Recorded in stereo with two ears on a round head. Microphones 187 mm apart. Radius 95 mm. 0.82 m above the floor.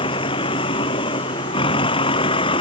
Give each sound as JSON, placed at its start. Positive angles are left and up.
{"t": 0.0, "sound": "a vehicle", "side_deg": 25}